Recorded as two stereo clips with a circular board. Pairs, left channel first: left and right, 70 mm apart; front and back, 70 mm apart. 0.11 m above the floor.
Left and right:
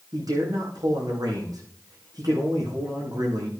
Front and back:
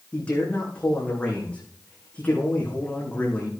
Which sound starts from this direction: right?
A man speaking, at 0.1 s.